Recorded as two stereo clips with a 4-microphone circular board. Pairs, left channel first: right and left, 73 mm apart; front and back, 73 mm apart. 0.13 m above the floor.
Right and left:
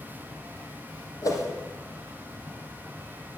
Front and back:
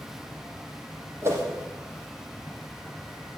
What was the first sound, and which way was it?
A whoosh, 125° right.